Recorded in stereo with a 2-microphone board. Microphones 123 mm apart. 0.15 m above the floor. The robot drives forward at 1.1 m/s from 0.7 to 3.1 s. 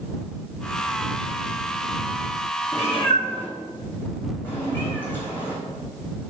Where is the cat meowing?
25° left (ahead or behind), 0.9 m; by 5.5 s 15° left (ahead or behind), 1.3 m.